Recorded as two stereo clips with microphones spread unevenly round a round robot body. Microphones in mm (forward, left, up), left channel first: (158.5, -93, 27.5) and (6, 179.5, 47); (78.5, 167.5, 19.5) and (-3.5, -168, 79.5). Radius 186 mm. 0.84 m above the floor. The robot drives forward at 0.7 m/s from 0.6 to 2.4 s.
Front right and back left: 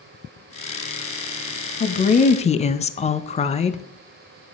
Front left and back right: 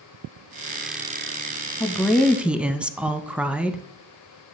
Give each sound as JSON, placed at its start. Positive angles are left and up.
{"t": 1.8, "sound": "a woman speaking", "azimuth_deg": -5, "distance_m": 0.9}